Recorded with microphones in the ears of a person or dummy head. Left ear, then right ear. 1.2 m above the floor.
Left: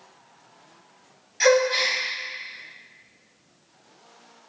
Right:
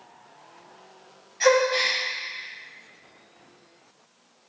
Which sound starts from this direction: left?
A gasp, at 1.4 s.